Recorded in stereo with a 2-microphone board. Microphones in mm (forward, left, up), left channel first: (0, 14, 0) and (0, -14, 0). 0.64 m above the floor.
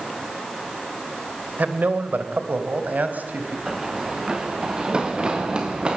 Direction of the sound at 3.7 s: 25° right (ahead or behind).